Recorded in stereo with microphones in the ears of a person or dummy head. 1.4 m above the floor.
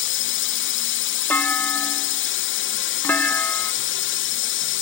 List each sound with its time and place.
0.0 s a drone: 60° left (ahead or behind)
1.3 s a clunk: 10° left (ahead or behind)